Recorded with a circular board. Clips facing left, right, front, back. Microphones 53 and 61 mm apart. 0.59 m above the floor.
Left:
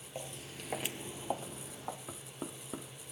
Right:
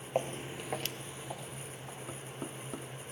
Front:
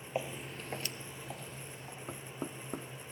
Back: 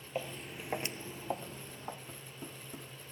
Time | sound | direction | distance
0.1 | footsteps | 70° right | 0.8 m
2.1 | knocking | 5° left | 0.9 m